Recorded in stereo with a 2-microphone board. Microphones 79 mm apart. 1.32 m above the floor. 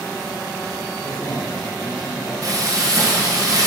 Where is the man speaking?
50° left (ahead or behind), 3.5 m.